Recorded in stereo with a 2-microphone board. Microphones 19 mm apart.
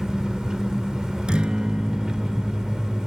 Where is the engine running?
45° right (ahead or behind), 1.4 m.